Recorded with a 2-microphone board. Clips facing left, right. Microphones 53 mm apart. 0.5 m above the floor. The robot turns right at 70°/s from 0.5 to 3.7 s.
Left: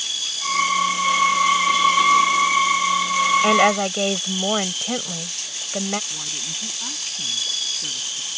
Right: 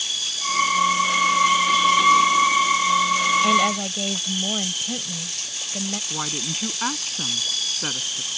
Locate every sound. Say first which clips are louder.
3.4 s a woman speaking: left 3 dB; 45° left (ahead or behind); by 6.0 s 60° left (ahead or behind)
6.1 s a woman speaking: right 4 dB; 70° right (ahead or behind)